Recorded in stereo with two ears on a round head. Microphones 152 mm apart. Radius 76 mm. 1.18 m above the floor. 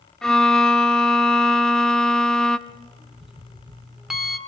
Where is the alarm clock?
5° right (ahead or behind), 2.0 m.